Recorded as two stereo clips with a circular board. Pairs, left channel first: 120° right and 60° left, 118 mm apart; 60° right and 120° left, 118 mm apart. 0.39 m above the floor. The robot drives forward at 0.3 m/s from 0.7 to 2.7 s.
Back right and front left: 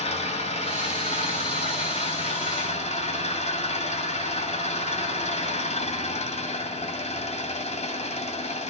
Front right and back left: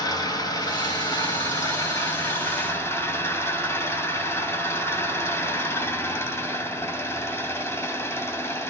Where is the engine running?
110° right, 2 m; by 8.7 s 125° right, 2.5 m.